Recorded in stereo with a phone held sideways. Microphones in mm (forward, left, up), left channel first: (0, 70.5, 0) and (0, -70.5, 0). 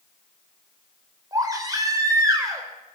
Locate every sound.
1.3 s a baby crying: 25° right (ahead or behind), 4 m